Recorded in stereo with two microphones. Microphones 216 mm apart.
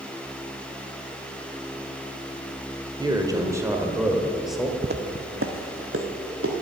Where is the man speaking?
20° right (ahead or behind), 1.4 m; by 4.7 s centre (ahead or behind), 1.5 m.